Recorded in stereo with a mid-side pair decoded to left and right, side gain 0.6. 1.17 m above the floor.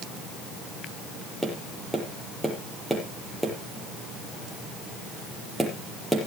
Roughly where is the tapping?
Ahead.